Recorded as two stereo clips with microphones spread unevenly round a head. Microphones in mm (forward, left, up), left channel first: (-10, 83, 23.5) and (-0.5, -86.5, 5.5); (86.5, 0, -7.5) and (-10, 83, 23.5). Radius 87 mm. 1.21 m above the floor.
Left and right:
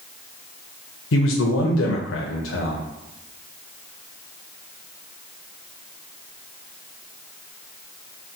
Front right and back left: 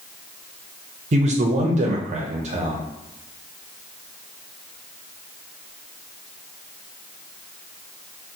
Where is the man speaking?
100° left, 0.5 m.